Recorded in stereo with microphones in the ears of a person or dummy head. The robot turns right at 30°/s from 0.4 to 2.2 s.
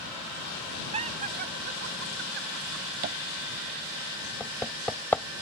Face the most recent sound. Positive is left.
turn(degrees=10)  # may be behind; listen again after turning